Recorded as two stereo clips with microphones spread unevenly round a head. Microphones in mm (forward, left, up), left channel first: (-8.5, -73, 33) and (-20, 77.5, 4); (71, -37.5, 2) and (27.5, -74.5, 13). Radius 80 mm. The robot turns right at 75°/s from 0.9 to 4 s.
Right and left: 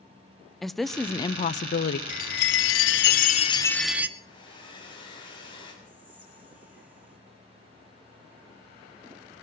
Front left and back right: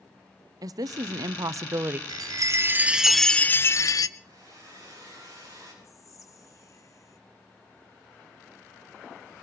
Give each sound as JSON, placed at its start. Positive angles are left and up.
{"t": 0.6, "sound": "a woman speaking", "azimuth_deg": -170, "distance_m": 0.6}
{"t": 2.1, "sound": "a chime", "azimuth_deg": -130, "distance_m": 0.7}
{"t": 4.2, "sound": "a hair dryer", "azimuth_deg": -140, "distance_m": 5.5}
{"t": 5.8, "sound": "whispering", "azimuth_deg": 0, "distance_m": 1.4}